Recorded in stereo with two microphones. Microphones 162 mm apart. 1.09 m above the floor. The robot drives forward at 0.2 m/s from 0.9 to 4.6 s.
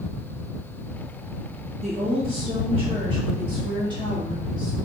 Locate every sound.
1.8 s a woman speaking: 40° right (ahead or behind), 1.1 m; by 4.7 s 30° right (ahead or behind), 1.5 m